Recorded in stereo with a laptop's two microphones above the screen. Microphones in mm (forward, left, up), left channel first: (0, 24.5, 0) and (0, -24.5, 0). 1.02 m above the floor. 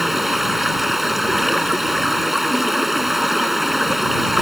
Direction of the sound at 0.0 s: 5° right (ahead or behind).